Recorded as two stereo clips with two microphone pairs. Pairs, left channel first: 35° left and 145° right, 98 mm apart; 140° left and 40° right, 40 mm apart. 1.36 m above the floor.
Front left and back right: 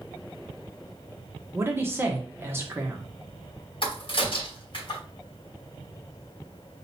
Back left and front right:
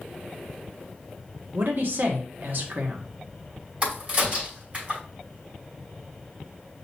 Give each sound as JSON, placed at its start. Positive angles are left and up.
{"t": 1.5, "sound": "a man speaking", "azimuth_deg": -75, "distance_m": 1.3}
{"t": 3.8, "sound": "a crack", "azimuth_deg": 10, "distance_m": 3.0}